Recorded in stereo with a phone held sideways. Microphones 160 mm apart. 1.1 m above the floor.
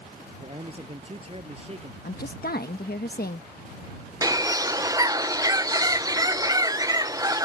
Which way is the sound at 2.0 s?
65° left (ahead or behind).